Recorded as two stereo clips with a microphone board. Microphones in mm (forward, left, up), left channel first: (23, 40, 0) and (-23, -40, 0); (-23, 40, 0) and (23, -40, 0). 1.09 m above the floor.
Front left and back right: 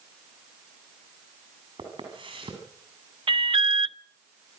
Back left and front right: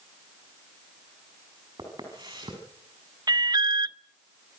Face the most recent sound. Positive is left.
turn(degrees=-105)